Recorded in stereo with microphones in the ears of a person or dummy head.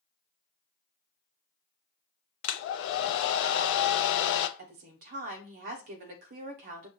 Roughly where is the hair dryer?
Left.